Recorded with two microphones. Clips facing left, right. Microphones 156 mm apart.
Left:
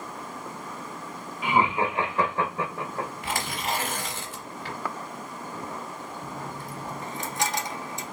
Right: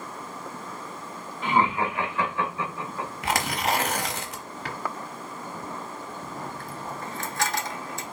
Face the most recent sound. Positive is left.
turn(degrees=20)  # may be behind; listen again after turning